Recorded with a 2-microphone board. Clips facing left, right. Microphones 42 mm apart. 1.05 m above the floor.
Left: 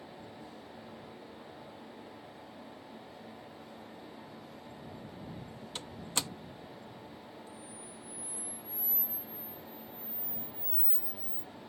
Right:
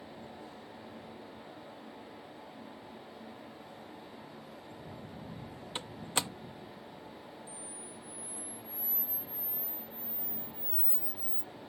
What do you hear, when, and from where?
5.8 s a door slam: 20° right (ahead or behind)
7.5 s a camera shutter: 55° left (ahead or behind)